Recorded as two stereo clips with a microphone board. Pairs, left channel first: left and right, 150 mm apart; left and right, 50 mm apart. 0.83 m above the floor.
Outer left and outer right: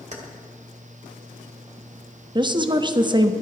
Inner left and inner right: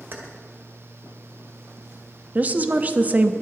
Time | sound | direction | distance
0.1 | keys jangling | 50° right (ahead or behind) | 2 m
2.4 | a woman speaking | 30° right (ahead or behind) | 1.0 m